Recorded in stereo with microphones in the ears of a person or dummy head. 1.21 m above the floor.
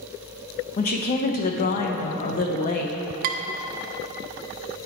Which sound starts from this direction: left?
A woman speaking, at 0.8 s.